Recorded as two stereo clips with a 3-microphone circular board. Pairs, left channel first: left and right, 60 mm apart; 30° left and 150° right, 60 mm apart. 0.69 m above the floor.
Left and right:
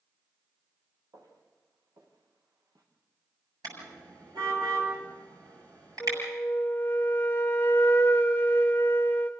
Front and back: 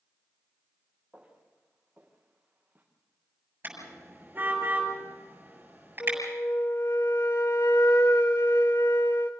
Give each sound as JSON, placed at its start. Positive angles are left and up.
{"t": 1.1, "sound": "footsteps", "azimuth_deg": -80, "distance_m": 5.5}
{"t": 3.6, "sound": "a car horn", "azimuth_deg": -95, "distance_m": 8.0}
{"t": 6.0, "sound": "a flute", "azimuth_deg": 35, "distance_m": 2.0}